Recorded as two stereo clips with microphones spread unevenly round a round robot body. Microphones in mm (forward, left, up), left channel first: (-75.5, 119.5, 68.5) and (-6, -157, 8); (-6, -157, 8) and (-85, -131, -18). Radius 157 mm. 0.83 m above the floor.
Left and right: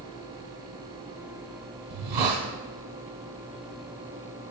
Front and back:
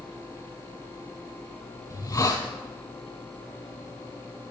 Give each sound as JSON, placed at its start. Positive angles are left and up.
{"t": 1.9, "sound": "a hiss", "azimuth_deg": -55, "distance_m": 2.0}